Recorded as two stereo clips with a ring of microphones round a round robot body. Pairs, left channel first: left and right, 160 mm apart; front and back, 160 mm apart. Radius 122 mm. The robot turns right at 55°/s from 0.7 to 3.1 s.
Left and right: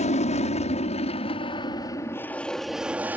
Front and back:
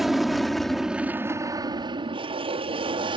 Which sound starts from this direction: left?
An aircraft, at 0.0 s.